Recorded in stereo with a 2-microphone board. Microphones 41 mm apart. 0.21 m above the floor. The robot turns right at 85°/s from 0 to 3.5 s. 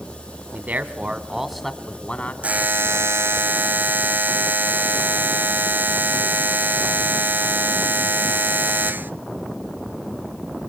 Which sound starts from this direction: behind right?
A buzzer, at 2.4 s.